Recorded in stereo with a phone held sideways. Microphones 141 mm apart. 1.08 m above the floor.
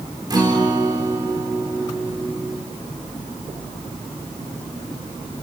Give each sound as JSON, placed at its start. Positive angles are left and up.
{"t": 0.3, "sound": "a guitar", "side_deg": -30, "distance_m": 4.0}